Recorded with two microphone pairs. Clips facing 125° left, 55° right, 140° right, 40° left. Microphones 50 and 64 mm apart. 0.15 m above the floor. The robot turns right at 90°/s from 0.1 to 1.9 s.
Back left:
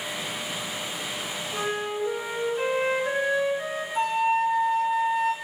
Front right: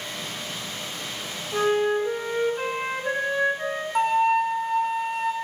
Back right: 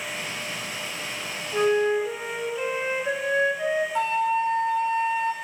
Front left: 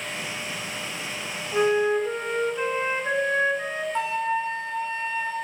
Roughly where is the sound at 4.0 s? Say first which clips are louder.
Front right 3 dB, front left 1 dB; ahead right.